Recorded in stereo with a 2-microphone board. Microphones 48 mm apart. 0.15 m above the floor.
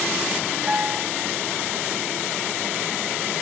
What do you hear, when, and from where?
0.7 s a piano: 30° right (ahead or behind)